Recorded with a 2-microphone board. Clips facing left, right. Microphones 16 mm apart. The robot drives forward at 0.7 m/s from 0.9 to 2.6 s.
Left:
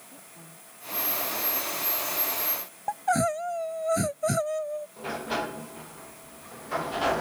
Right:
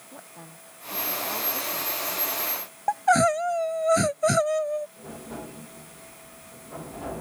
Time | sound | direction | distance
0.1 | a woman speaking | 60° right (ahead or behind) | ?
2.9 | crying | 30° right (ahead or behind) | ?
5.0 | a sliding door | 80° left | ?